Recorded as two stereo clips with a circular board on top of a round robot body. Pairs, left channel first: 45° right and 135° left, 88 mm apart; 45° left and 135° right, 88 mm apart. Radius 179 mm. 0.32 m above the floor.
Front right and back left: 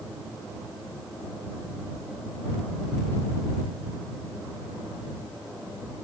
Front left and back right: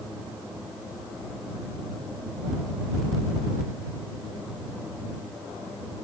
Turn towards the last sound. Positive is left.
No sound to turn to.